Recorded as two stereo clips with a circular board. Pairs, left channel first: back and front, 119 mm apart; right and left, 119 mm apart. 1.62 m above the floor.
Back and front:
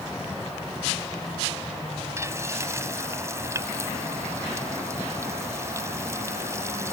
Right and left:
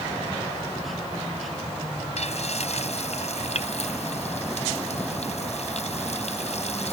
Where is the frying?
65° right.